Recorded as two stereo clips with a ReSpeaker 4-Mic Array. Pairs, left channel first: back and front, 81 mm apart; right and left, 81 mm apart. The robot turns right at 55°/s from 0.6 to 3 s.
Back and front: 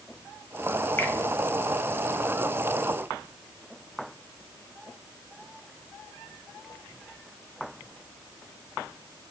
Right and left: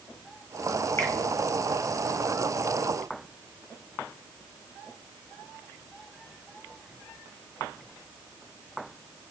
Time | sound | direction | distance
1.0 | a finger snap | 130° right | 1.1 m